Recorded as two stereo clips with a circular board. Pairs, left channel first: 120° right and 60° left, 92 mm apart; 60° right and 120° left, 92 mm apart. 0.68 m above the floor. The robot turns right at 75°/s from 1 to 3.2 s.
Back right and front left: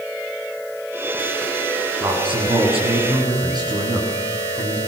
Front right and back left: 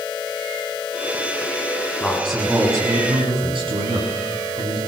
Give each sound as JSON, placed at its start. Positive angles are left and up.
{"t": 2.0, "sound": "a man speaking", "azimuth_deg": 10, "distance_m": 7.5}